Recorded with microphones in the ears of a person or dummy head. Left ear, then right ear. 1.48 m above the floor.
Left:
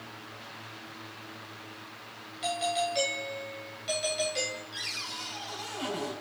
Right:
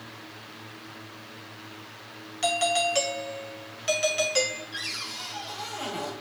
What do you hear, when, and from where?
2.4 s a doorbell: 40° right (ahead or behind), 2 m
4.7 s a cupboard door: 5° right (ahead or behind), 4.5 m